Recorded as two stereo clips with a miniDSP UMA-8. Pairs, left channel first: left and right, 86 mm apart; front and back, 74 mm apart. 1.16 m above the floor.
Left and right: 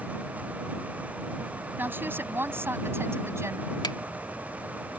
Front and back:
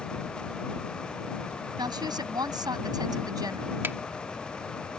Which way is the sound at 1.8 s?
155° right.